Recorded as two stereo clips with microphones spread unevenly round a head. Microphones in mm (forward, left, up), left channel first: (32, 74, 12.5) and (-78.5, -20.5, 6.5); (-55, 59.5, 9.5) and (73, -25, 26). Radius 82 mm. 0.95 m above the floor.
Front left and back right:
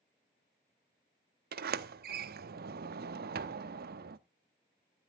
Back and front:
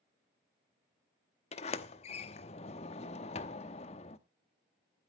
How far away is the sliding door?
About 0.9 m.